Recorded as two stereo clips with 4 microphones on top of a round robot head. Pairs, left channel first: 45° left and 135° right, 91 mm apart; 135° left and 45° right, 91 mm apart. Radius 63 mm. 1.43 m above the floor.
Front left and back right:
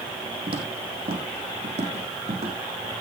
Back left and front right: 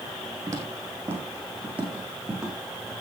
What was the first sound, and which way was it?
Footsteps, 105° right.